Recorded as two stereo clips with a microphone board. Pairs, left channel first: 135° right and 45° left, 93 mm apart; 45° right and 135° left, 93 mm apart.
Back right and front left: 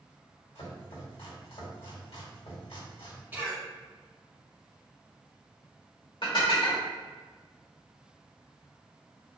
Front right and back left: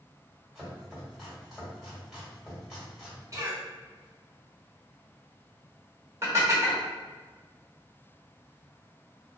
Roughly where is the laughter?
I don't hear laughter.